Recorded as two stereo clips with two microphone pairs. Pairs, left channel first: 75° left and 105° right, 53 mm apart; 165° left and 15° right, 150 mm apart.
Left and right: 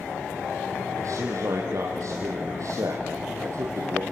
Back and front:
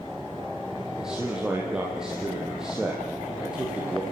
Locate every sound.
1.0 s a man speaking: 100° right, 4.5 m